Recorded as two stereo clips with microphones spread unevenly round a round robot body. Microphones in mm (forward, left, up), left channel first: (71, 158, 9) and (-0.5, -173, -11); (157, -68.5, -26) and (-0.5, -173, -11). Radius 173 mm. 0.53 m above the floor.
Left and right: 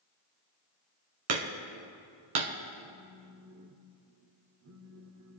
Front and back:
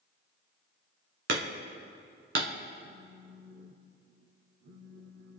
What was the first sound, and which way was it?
Hammering, 135° right.